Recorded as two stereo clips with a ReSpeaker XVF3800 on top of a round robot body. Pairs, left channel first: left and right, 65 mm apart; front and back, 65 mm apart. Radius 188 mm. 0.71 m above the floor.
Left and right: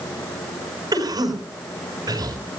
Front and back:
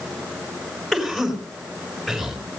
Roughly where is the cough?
Right.